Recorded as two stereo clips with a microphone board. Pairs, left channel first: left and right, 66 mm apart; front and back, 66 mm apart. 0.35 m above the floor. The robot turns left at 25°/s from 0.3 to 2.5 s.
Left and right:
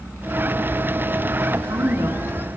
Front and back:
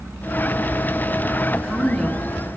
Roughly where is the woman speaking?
Right.